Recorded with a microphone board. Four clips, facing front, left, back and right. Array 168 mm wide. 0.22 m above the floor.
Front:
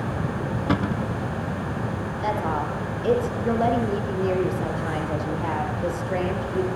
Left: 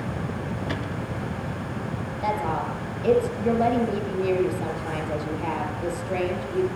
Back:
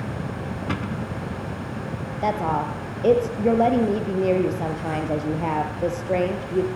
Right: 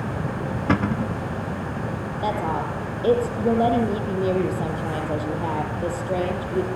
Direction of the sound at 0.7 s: 70° right.